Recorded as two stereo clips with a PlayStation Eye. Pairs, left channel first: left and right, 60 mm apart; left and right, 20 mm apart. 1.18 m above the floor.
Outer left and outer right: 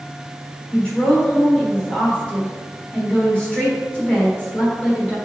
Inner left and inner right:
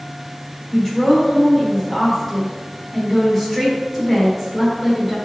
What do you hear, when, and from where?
0.7 s a woman speaking: 15° left (ahead or behind), 4 m